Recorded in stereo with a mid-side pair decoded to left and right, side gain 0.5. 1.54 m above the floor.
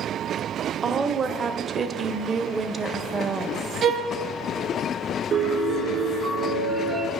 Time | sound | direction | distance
0.8 | a woman speaking | 35° right | 0.9 m
3.8 | a violin | 50° right | 0.7 m
5.3 | a piano | 50° right | 3 m